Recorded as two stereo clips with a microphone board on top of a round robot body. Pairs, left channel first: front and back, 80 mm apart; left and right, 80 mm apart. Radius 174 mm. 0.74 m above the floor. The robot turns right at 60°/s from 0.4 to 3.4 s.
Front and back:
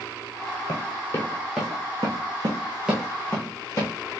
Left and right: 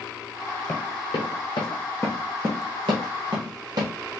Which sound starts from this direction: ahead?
Running footsteps, at 0.7 s.